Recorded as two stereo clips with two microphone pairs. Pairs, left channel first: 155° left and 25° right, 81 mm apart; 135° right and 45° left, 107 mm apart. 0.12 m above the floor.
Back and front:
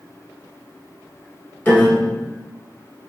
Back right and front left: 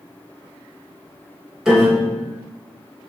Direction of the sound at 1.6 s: 130° left.